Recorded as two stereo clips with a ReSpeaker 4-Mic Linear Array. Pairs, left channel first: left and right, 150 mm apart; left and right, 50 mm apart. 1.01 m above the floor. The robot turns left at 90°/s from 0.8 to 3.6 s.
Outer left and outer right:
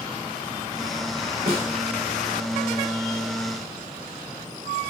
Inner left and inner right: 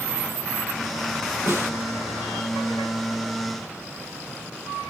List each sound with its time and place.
1.5 s a snare drum: 75° right (ahead or behind), 3 m; by 1.7 s 80° right, 3 m